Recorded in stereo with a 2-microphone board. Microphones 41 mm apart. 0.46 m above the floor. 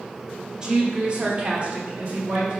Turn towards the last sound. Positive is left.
turn(degrees=-35)  # may be behind; listen again after turning